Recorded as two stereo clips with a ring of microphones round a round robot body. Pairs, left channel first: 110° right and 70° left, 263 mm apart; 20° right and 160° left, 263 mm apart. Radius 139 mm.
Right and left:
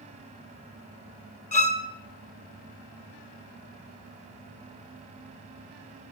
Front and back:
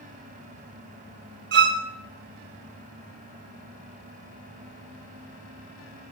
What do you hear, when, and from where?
1.5 s a violin: 170° right, 1.3 m